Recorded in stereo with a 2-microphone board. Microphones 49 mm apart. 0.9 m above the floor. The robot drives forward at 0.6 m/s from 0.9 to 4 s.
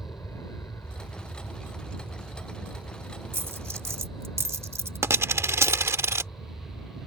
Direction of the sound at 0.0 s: 60° left (ahead or behind).